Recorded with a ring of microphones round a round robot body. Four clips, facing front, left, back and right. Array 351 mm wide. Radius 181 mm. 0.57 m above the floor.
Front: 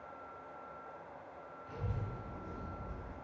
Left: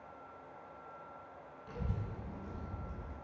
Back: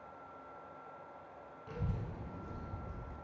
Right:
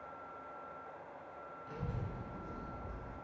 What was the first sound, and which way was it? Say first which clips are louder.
A child speaking: left 1 dB, back 1 dB; 150° left.